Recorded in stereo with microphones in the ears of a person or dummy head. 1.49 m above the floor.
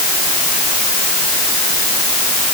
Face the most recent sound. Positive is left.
No sound to turn to.